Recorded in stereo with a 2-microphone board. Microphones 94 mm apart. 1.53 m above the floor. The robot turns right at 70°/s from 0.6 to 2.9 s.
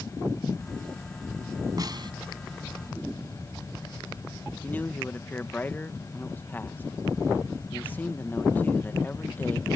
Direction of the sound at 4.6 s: 20° left (ahead or behind).